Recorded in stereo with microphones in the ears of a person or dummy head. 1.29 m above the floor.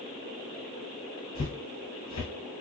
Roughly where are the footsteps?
Left.